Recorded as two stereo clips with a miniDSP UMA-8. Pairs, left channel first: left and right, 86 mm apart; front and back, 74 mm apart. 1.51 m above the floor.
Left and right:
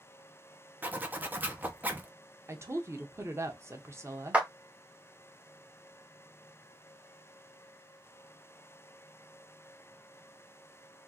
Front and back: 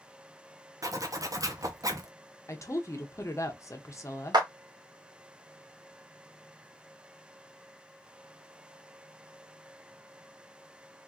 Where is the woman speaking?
35° right, 0.6 m.